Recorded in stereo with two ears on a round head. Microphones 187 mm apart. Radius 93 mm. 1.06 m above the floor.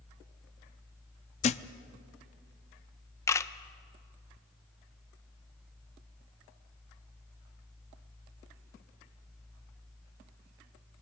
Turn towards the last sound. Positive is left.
turn(degrees=15)  # may be behind; listen again after turning